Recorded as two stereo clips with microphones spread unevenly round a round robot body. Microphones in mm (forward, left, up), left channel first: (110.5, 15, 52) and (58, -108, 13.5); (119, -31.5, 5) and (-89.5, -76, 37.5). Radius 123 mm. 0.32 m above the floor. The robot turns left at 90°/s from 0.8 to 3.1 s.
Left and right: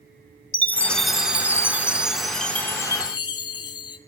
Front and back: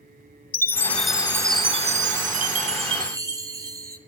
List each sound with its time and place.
0.5 s a chime: 35° right, 0.7 m; by 4.0 s 120° left, 0.7 m